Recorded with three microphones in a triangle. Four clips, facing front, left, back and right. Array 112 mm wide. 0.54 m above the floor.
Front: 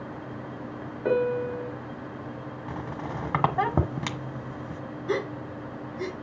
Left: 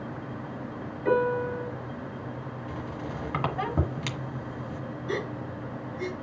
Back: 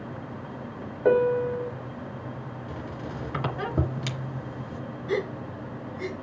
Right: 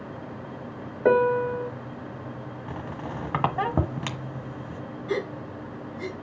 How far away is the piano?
About 2.5 m.